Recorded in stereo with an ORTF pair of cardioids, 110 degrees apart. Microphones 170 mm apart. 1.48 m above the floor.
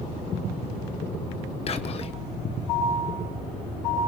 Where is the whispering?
40° left, 1.2 m.